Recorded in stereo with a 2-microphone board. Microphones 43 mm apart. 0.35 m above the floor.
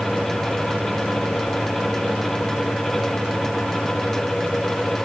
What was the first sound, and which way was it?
Only background noise.